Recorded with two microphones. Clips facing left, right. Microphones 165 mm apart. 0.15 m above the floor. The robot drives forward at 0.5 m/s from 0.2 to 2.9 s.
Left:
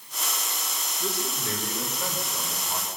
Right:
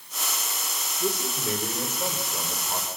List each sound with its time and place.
1.0 s a man speaking: 20° right (ahead or behind), 6.5 m; by 2.9 s 15° right (ahead or behind), 7.5 m